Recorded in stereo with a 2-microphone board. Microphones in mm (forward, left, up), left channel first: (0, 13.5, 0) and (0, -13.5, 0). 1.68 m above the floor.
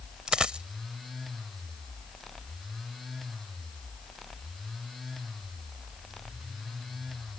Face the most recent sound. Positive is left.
turn(degrees=-35)  # may be behind; listen again after turning